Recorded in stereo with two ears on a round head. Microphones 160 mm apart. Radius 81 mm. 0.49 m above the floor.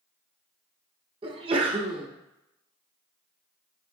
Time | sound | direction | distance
1.2 | a sneeze | 30° right (ahead or behind) | 0.8 m